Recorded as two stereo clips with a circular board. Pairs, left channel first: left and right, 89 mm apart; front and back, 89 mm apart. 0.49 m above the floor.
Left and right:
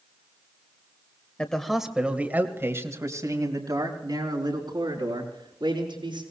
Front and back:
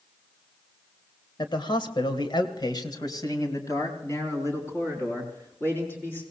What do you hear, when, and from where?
1.4 s a man speaking: 15° left, 2.0 m; by 6.2 s 65° right, 6.5 m